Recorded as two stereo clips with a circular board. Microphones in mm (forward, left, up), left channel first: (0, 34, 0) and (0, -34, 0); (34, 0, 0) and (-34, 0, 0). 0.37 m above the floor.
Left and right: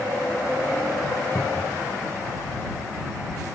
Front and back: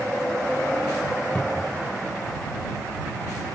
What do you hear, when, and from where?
1.4 s a cupboard door: 55° left